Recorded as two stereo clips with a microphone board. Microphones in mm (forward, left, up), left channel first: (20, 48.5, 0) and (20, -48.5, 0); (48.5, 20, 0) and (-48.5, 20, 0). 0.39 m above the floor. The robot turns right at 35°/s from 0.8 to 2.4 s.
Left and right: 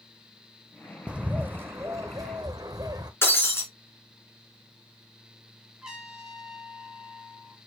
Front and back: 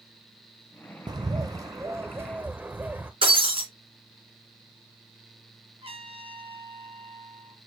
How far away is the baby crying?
I don't hear a baby crying.